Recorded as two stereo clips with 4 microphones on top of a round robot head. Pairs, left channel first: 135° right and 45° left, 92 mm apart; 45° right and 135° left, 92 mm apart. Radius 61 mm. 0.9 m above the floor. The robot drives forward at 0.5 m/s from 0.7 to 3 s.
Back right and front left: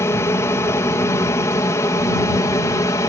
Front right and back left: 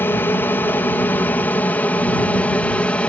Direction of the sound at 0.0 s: 100° right.